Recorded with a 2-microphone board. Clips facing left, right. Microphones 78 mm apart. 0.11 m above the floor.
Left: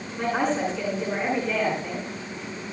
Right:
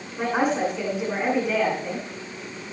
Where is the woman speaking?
10° right (ahead or behind), 9.5 m.